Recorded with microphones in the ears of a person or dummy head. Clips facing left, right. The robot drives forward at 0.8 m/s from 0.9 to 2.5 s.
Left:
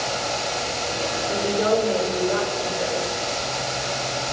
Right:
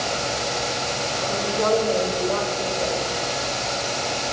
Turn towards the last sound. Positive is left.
turn(degrees=15)  # may be behind; listen again after turning